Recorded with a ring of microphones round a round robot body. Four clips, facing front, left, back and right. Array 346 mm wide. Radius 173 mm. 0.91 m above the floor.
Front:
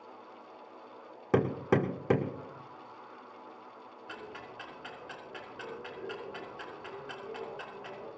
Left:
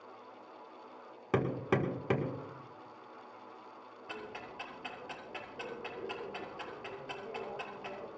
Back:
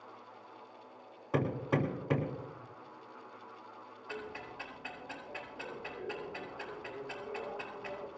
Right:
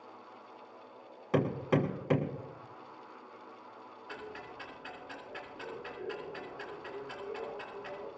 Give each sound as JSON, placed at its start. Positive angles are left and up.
{"t": 1.3, "sound": "hammering", "azimuth_deg": 10, "distance_m": 2.0}
{"t": 4.1, "sound": "ticking", "azimuth_deg": 60, "distance_m": 7.5}